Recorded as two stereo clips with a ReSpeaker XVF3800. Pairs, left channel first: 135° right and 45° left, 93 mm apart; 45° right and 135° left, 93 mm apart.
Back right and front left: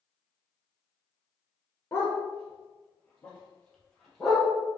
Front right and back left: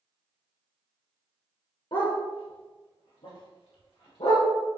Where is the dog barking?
70° right, 3 m; by 4.5 s 45° right, 4 m.